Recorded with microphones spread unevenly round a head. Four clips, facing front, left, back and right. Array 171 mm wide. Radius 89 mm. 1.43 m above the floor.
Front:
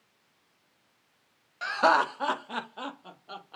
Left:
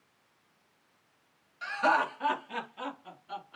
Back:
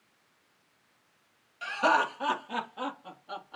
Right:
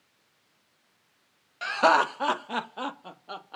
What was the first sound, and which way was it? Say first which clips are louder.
Laughter: right 5 dB, front 3 dB; 60° right.